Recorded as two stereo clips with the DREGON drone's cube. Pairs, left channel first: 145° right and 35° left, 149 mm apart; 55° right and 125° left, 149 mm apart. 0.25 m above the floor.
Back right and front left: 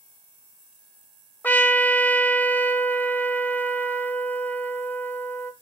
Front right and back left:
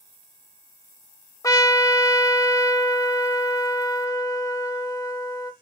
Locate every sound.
1.4 s a trumpet: 85° right, 0.8 m